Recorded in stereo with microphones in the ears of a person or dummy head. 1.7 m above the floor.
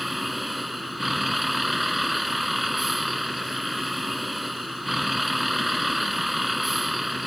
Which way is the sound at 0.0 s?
Centre (ahead or behind).